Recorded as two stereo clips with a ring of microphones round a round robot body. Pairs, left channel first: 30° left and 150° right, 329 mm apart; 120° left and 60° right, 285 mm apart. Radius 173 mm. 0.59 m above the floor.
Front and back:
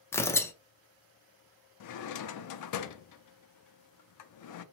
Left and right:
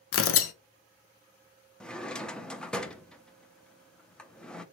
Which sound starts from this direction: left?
Tearing paper, at 0.1 s.